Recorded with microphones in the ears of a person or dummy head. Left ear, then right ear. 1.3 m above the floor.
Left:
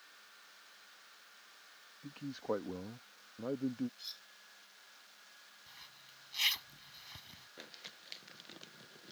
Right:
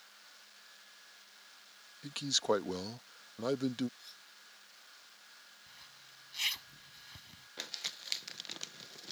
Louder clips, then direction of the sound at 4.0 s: Left 6 dB; 35° left (ahead or behind).